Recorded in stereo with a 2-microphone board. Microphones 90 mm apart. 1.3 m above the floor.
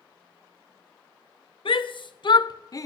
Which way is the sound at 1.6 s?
70° left (ahead or behind).